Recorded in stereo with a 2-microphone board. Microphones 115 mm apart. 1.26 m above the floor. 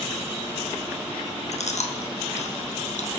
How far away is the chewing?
About 1.2 m.